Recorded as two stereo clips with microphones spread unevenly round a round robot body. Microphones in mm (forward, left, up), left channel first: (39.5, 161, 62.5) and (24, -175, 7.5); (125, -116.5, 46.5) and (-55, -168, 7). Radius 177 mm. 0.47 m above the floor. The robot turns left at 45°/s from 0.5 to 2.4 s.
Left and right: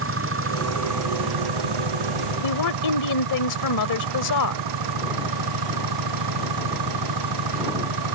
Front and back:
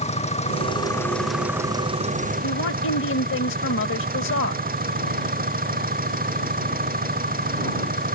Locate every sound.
0.0 s an engine running: 40° right; by 8.2 s 125° right
2.4 s a woman speaking: 55° left